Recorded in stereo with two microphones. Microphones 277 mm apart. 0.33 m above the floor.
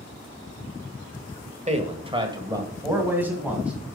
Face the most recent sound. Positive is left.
turn(degrees=-5)  # may be behind; listen again after turning